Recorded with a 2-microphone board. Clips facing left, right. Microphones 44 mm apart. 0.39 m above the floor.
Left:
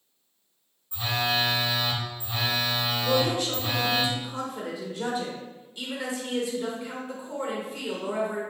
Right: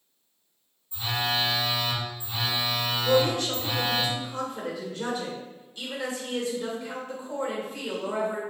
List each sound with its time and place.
0.9 s a phone buzzing: 55° left (ahead or behind), 1.2 m
3.0 s a woman speaking: 15° left (ahead or behind), 1.3 m